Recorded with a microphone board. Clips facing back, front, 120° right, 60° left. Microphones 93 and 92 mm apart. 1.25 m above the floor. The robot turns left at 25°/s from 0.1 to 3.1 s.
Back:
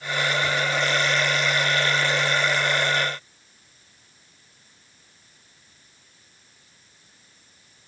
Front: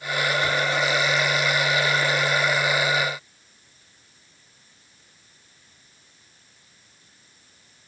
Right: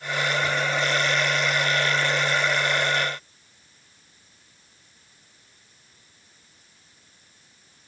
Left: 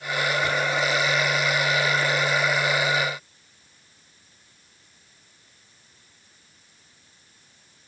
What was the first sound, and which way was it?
Only background noise.